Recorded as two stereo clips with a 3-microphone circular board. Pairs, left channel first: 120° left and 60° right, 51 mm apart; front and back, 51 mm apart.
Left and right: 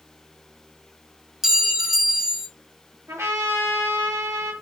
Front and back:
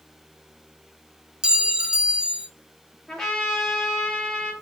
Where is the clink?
125° right, 0.9 m.